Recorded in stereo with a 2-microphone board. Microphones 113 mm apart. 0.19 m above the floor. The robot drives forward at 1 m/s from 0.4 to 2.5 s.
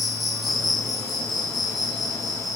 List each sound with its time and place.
0.0 s an insect: centre (ahead or behind), 0.7 m